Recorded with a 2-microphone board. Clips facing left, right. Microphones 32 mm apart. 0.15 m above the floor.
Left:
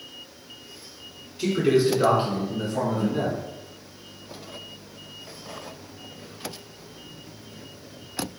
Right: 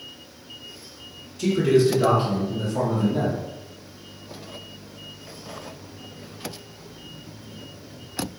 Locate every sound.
1.4 s a man speaking: 20° left (ahead or behind), 1.1 m